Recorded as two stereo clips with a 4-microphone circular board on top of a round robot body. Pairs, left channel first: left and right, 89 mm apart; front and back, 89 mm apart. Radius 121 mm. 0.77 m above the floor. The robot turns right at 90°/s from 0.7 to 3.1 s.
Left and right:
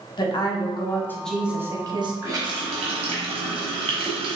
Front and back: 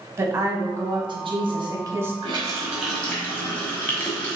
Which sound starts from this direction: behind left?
A woman speaking, at 0.2 s.